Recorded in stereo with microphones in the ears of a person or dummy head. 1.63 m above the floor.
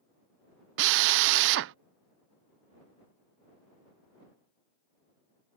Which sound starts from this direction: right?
A drill, at 0.8 s.